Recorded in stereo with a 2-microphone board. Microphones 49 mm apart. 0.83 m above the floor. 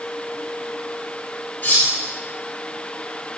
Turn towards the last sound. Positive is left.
turn(degrees=35)  # may be behind; listen again after turning